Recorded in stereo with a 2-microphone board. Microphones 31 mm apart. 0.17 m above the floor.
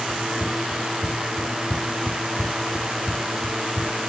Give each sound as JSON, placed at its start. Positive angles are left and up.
{"t": 0.1, "sound": "running footsteps", "side_deg": 35}